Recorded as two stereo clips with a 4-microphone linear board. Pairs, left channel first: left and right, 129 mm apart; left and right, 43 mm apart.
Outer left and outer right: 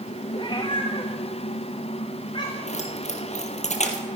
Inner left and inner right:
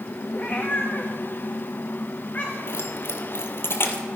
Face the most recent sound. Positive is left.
turn(degrees=65)  # may be behind; listen again after turning